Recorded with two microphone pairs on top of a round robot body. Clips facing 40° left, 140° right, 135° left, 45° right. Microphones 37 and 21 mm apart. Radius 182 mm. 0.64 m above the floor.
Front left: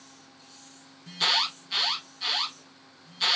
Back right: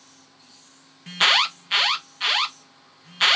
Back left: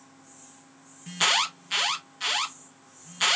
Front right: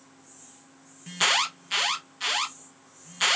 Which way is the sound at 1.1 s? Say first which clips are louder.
Back right 7 dB, even; 135° right.